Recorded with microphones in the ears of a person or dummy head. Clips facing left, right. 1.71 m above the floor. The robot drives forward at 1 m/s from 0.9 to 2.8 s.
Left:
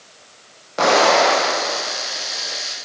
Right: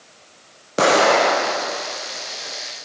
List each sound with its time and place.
0.8 s an explosion: 40° right (ahead or behind), 1.1 m; by 2.5 s 15° right (ahead or behind), 2.5 m